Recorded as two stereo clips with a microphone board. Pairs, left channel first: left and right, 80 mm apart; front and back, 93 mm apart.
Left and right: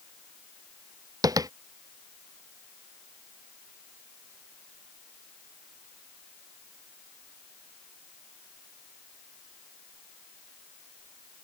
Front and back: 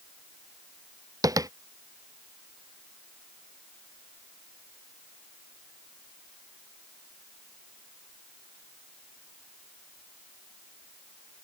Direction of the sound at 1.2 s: 130° right.